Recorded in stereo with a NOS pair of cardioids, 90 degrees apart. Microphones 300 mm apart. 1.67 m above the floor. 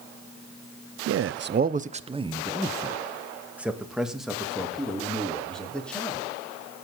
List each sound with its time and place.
1.1 s a man speaking: 55° right, 0.8 m; by 6.2 s 5° left, 5 m